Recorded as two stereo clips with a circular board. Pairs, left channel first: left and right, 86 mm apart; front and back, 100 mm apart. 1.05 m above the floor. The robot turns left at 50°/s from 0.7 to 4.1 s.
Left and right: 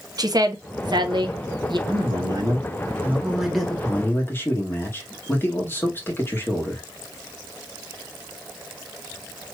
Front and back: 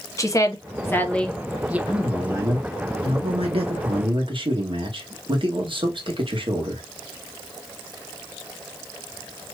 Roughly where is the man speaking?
Right.